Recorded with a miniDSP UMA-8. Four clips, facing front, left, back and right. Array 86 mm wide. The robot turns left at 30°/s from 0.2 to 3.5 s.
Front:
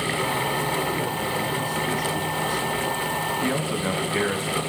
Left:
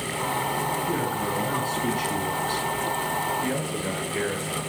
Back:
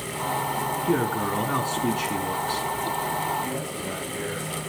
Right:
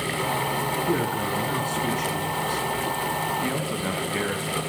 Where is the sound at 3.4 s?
25° right, 3 m.